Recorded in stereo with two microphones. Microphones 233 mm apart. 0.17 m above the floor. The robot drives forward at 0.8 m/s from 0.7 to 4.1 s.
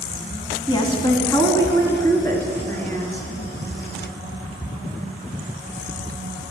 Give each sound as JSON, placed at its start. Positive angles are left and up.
{"t": 0.7, "sound": "a woman speaking", "side_deg": 20, "distance_m": 1.3}